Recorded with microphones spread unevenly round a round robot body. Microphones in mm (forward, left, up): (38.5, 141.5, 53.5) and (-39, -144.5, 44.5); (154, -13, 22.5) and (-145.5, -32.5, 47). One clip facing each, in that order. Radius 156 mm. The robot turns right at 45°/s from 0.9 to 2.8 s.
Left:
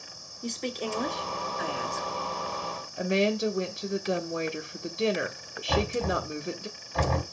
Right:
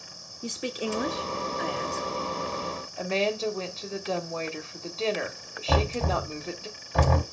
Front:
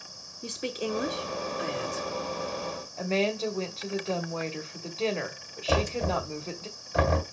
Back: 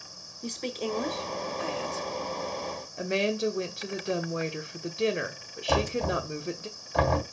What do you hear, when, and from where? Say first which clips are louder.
0.4 s a woman speaking: right 1 dB, even; 45° right, 0.8 m; by 2.1 s 10° left, 0.8 m
3.0 s a woman speaking: left 3 dB, even; 125° left, 0.9 m
5.7 s knocking: even, even; 80° right, 2.5 m